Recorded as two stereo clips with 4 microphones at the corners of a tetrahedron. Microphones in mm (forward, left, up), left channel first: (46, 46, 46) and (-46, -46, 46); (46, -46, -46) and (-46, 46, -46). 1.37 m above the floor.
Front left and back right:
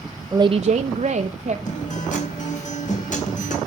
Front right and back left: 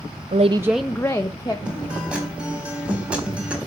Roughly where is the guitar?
Ahead left.